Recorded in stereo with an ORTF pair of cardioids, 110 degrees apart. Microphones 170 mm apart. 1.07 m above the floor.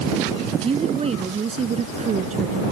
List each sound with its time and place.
0.5 s a woman speaking: 35° right; by 2.6 s 45° right